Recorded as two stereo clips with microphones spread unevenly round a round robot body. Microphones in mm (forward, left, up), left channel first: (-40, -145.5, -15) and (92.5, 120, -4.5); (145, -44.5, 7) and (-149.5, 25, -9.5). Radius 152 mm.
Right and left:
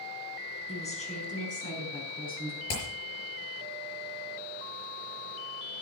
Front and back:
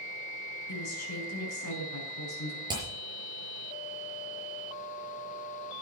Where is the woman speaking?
50° right, 4.5 m; by 2.6 s 60° right, 5 m.